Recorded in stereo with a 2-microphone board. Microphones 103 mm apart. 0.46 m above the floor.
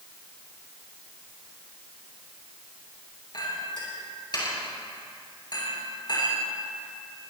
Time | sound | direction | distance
3.3 | a clink | 55° left (ahead or behind) | 7 m